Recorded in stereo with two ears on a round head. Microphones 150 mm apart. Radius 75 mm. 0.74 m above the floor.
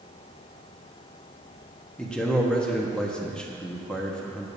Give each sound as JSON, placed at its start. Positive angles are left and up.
{"t": 2.0, "sound": "a man speaking", "side_deg": 5, "distance_m": 1.2}